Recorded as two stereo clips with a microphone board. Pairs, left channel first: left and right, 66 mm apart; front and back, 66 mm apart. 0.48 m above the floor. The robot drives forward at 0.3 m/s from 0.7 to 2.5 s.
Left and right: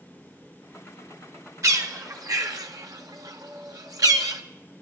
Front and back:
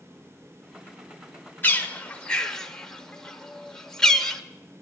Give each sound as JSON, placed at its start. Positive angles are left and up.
{"t": 1.6, "sound": "a bird", "azimuth_deg": -60, "distance_m": 0.8}